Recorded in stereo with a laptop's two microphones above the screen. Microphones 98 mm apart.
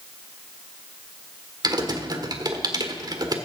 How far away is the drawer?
No drawer in this recording.